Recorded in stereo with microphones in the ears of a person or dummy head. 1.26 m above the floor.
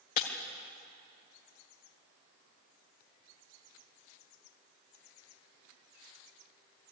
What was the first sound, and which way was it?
Breaking glass, 50° left (ahead or behind).